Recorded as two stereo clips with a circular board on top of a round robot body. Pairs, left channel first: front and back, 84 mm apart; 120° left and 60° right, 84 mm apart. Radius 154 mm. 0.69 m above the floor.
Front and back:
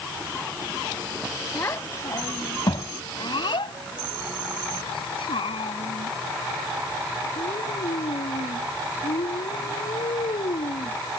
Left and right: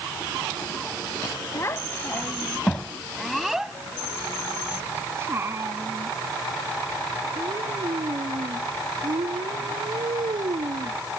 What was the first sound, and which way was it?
A child speaking, 60° left.